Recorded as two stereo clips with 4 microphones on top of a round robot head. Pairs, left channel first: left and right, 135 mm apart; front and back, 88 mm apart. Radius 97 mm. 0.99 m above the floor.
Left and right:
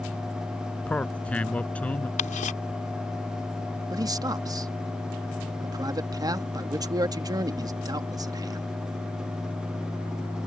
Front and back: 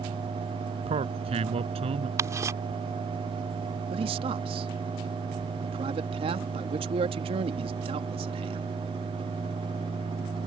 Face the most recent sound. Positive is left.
turn(degrees=-155)